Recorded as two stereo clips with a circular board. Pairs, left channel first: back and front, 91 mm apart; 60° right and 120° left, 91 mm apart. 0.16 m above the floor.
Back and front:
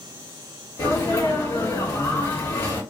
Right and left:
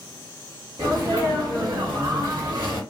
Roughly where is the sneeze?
Behind left.